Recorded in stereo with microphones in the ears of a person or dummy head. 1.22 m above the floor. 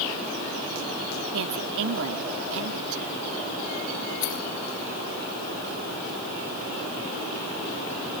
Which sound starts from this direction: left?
Keys jangling, at 4.2 s.